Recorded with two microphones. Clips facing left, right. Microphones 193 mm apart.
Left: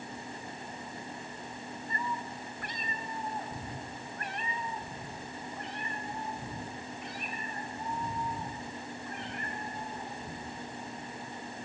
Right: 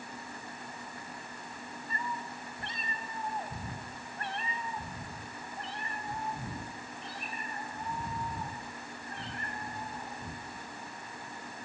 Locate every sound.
1.9 s a cat meowing: 25° right (ahead or behind), 2.5 m; by 10.7 s 35° right (ahead or behind), 8 m